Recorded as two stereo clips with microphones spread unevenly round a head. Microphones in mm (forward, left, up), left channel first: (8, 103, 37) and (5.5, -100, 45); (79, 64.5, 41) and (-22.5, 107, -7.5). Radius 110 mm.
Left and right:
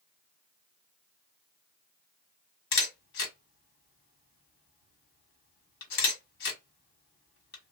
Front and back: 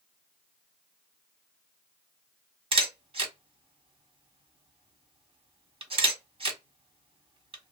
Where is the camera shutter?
120° left, 1.4 m.